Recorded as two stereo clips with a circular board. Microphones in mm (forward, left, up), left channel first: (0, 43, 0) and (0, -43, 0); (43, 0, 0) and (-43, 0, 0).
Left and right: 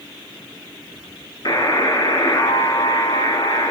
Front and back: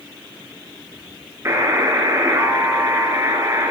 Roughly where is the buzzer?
Behind left.